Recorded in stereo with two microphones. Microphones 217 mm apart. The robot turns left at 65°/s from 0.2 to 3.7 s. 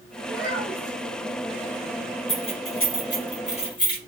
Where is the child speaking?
75° right, 1.5 m; by 1.0 s 120° right, 1.5 m.